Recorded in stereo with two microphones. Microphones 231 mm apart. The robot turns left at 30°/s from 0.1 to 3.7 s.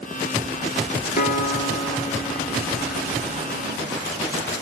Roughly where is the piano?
Ahead left.